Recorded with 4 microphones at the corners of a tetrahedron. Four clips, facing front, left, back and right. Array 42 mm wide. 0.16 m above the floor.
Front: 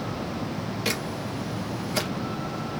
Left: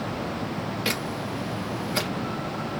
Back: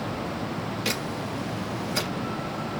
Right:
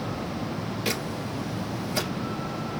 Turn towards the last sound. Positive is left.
turn(degrees=85)